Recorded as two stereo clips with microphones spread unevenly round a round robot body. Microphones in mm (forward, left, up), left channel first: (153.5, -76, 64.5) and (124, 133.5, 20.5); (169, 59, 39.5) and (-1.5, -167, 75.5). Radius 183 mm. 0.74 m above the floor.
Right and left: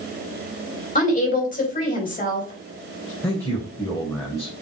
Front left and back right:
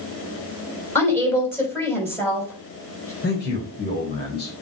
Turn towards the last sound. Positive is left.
turn(degrees=0)